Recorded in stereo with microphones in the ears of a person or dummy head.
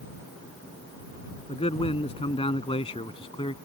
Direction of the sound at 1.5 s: 25° left (ahead or behind).